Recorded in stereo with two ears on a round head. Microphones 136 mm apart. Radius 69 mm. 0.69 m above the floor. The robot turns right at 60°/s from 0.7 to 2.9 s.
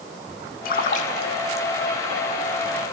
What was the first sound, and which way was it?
A splash, 65° left (ahead or behind).